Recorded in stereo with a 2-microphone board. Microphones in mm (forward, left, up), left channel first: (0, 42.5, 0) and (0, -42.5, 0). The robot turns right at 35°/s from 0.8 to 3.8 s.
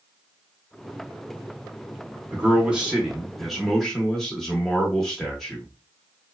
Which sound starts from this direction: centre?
A man speaking, at 2.3 s.